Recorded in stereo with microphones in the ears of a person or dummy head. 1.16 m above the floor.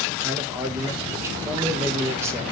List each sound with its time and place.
0.2 s a man speaking: 15° right (ahead or behind), 1.5 m